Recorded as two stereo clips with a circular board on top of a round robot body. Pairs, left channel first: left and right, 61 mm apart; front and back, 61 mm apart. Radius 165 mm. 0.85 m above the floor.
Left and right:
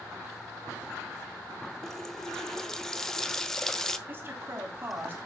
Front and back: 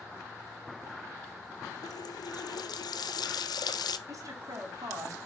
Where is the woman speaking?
150° right, 2.5 m.